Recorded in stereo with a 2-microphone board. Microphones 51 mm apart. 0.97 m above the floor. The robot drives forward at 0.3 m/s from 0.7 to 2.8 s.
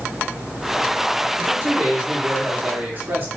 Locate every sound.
1.4 s a man speaking: 55° right (ahead or behind), 1.9 m; by 3.3 s 45° right (ahead or behind), 2 m